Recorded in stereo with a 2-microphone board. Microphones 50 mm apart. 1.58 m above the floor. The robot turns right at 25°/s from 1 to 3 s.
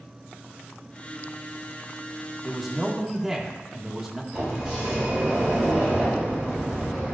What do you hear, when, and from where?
2.4 s a man speaking: 5° left (ahead or behind), 1.7 m; by 4.2 s 10° right (ahead or behind), 1.7 m
4.3 s a sliding door: 15° right (ahead or behind), 4 m